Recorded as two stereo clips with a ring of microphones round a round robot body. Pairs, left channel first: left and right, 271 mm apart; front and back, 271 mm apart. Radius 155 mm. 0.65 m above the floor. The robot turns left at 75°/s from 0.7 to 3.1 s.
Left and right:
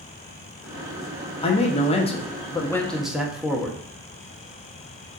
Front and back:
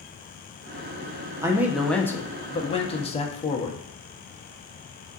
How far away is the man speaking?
About 0.7 m.